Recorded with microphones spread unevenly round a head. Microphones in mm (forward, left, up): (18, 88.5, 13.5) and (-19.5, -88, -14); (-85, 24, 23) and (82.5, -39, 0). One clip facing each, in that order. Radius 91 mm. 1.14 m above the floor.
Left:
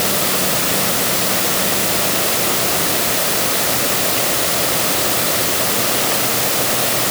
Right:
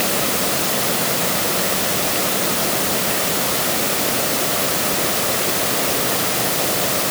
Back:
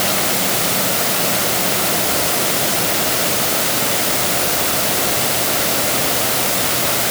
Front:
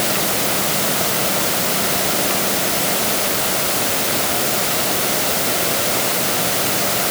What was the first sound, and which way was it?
Only background noise.